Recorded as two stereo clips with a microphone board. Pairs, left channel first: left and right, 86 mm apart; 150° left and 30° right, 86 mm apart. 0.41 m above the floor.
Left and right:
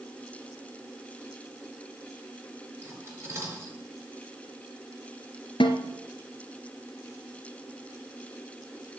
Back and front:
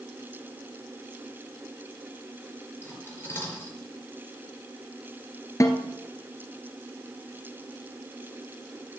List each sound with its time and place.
2.8 s cutlery clinking: 150° right, 5 m
5.6 s a snare drum: 100° left, 1.8 m